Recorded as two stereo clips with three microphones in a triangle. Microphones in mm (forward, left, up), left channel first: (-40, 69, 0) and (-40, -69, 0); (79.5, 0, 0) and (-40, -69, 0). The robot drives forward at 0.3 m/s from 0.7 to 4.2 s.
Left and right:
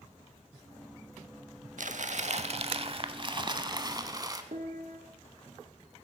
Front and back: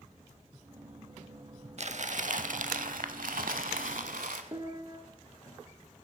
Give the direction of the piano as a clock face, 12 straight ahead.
3 o'clock.